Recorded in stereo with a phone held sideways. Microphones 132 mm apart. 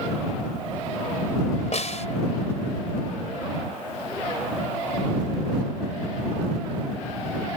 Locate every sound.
1.7 s a snare drum: 60° left (ahead or behind)